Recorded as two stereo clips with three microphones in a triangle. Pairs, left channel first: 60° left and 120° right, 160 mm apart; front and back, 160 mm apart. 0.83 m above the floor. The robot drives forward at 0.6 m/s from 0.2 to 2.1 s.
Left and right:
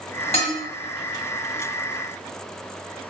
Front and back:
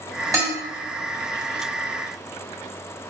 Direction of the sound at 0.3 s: 110° left.